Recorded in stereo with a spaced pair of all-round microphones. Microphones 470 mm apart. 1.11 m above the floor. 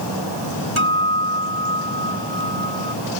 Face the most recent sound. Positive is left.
turn(degrees=-85)